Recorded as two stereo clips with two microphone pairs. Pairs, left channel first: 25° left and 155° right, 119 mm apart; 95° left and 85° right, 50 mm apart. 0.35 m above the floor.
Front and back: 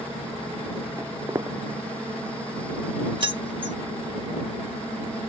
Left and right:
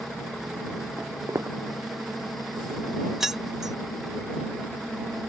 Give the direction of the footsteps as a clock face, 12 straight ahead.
3 o'clock.